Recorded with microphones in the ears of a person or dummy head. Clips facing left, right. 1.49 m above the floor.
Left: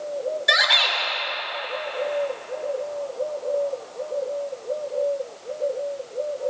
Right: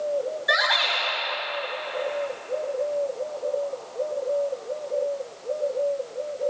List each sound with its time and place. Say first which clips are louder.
0.5 s a shout: even; 40° left (ahead or behind), 5 m